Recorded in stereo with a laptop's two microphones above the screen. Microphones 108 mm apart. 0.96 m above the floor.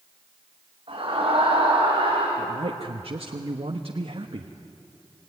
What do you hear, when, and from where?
0.9 s a scream: 60° right (ahead or behind), 6.5 m
2.4 s a man speaking: 65° right (ahead or behind), 1.2 m